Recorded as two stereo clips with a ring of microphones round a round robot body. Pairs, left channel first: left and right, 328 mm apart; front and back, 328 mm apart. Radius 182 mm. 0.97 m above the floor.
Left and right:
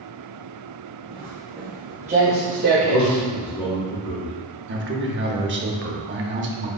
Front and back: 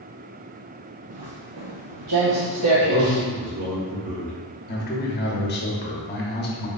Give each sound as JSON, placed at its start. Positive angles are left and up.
{"t": 1.1, "sound": "footsteps", "azimuth_deg": 175, "distance_m": 1.8}
{"t": 2.8, "sound": "a man speaking", "azimuth_deg": 160, "distance_m": 1.7}
{"t": 4.7, "sound": "a man speaking", "azimuth_deg": -50, "distance_m": 0.9}